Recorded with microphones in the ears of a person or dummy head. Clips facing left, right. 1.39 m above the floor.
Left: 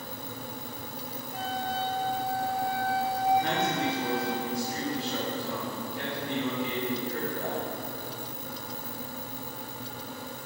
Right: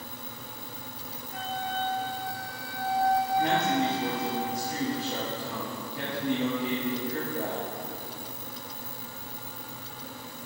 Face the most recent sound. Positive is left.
turn(degrees=-25)  # may be behind; listen again after turning